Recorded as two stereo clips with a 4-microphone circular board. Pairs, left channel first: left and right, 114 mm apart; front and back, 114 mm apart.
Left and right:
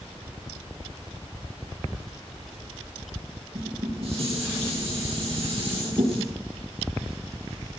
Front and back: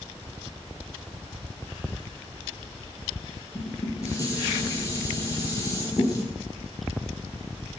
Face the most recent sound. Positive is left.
turn(degrees=-60)